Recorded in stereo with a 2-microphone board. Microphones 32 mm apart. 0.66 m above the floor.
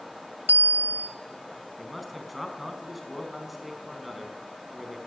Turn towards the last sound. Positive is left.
turn(degrees=-5)  # may be behind; listen again after turning